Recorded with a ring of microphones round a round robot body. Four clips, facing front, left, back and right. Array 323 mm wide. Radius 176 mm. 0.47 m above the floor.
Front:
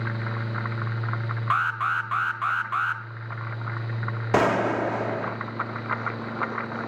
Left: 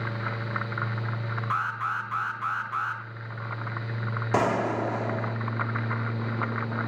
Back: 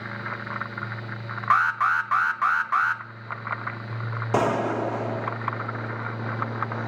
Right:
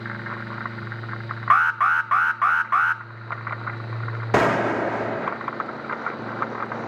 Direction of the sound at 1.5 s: 105° right.